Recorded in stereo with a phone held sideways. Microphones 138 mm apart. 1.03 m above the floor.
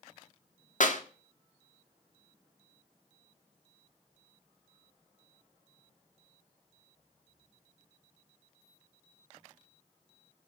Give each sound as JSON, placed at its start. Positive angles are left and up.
{"t": 0.8, "sound": "a clap", "side_deg": 65, "distance_m": 1.9}